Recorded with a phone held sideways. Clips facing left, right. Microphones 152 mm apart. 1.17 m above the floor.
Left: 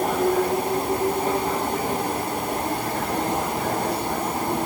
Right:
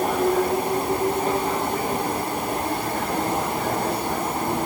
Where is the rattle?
No rattle in this recording.